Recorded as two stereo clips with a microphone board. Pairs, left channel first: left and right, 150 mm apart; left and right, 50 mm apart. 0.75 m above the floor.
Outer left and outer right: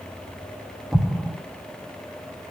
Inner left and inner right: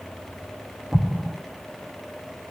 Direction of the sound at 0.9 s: 5° right (ahead or behind).